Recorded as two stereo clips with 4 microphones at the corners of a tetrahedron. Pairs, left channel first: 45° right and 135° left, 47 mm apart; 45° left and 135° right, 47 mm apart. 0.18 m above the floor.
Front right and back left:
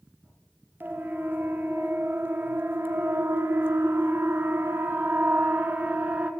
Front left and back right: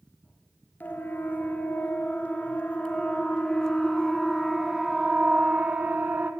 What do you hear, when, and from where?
0.8 s a siren: 90° left, 3 m; by 6.3 s 175° right, 1.7 m